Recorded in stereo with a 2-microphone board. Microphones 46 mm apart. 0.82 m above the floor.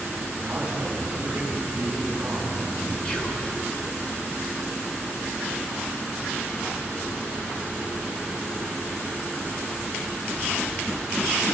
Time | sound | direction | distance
0.4 | a man speaking | 30° right (ahead or behind) | 7 m
3.0 | whispering | 25° left (ahead or behind) | 3.5 m